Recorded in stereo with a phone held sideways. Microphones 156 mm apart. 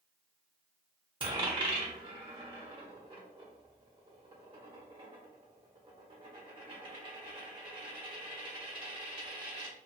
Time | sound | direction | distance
1.2 | a dropped coin | 30° right (ahead or behind) | 1.3 m